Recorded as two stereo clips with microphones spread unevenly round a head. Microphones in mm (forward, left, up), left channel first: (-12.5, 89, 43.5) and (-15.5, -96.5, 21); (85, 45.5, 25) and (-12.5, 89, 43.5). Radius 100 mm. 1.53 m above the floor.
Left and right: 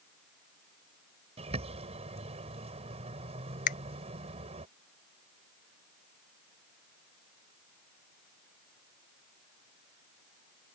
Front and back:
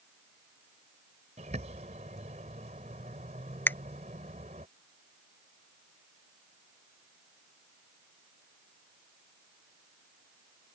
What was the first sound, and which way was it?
A bird, 150° right.